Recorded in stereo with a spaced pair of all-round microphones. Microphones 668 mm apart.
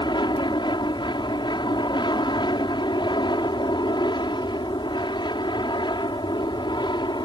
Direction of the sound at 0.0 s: 5° left (ahead or behind).